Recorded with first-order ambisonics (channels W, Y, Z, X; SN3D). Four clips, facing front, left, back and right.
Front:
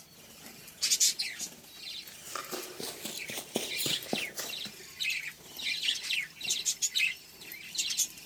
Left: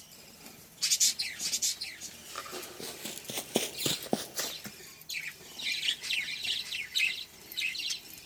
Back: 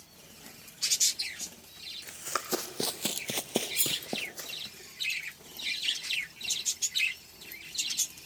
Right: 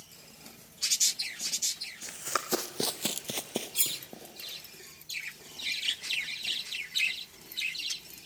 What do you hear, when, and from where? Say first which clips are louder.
2.0 s running footsteps: right 8 dB, back 6 dB; 120° right, 2 m; by 4.8 s 75° left, 2.0 m
3.8 s cutlery clinking: even, front 2 dB; 125° right, 1.0 m